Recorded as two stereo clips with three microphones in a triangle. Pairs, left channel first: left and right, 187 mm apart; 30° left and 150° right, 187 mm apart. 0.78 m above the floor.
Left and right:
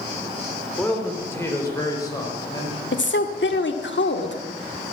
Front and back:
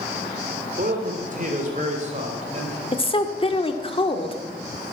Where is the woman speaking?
90° left, 1.6 m.